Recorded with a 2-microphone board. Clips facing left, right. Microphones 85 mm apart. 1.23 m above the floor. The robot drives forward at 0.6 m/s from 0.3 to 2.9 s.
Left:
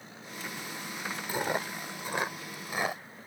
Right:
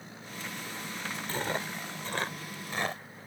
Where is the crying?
No crying in this recording.